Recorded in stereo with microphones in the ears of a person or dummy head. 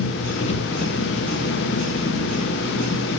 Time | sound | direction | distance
0.0 | an engine running | 30° left (ahead or behind) | 0.9 m